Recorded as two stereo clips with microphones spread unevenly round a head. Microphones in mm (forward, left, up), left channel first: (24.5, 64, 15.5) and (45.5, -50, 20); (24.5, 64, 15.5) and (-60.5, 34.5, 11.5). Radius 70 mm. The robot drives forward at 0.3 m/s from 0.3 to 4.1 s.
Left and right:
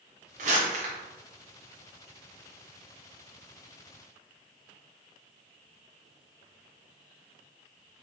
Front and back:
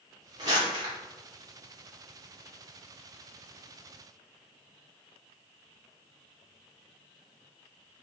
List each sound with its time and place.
0.4 s crumpling: 100° right, 1.2 m; by 0.9 s 110° right, 1.2 m